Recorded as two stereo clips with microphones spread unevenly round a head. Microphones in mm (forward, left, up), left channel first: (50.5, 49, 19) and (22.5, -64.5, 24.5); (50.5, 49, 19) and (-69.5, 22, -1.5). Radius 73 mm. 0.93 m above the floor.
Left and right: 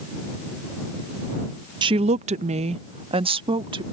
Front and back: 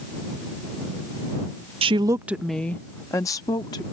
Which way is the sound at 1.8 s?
150° right.